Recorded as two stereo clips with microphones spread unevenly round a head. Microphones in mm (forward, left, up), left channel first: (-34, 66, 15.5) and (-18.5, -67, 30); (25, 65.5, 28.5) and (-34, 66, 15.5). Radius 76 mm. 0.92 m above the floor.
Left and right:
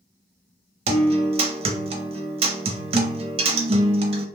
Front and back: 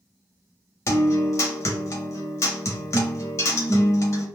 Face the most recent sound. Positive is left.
turn(degrees=-45)